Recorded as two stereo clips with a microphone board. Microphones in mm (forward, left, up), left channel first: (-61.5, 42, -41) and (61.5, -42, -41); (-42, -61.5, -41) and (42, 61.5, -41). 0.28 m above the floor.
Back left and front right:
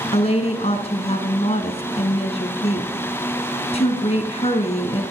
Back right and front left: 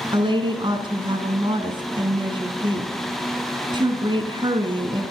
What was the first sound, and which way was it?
A woman speaking, 110° left.